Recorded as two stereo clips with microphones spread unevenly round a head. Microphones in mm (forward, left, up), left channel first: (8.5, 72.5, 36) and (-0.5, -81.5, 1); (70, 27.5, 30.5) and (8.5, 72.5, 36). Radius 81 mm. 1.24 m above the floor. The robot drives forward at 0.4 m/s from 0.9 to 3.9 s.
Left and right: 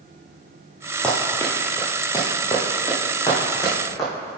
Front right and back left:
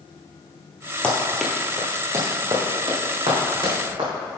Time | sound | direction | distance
1.0 | running footsteps | 30° left | 1.4 m